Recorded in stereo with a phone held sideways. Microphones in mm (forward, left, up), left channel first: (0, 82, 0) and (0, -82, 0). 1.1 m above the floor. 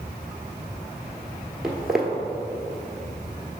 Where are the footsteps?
Centre (ahead or behind), 1.1 m.